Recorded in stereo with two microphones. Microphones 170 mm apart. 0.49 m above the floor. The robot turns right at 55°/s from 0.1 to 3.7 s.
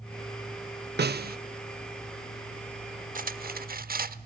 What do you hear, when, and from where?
1.0 s a snare drum: 75° right (ahead or behind), 0.6 m; by 1.4 s 65° right (ahead or behind), 0.6 m
3.1 s cutlery clinking: 110° right, 0.9 m; by 4.2 s 80° right, 0.9 m